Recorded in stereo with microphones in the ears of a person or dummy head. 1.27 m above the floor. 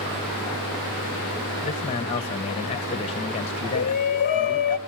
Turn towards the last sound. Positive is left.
turn(degrees=40)  # may be behind; listen again after turning